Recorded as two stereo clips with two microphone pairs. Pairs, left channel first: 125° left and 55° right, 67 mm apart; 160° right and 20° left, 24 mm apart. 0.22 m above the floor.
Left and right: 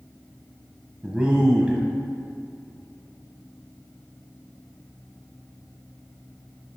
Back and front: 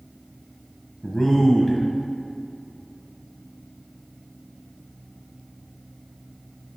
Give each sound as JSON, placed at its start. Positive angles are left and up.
{"t": 1.0, "sound": "a man speaking", "azimuth_deg": -105, "distance_m": 1.1}